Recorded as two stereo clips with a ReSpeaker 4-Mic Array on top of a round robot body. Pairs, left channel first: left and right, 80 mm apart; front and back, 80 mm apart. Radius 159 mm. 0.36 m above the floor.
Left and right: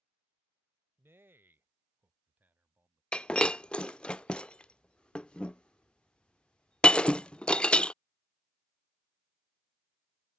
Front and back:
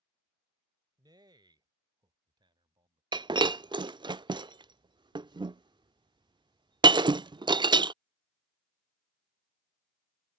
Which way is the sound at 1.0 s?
150° right.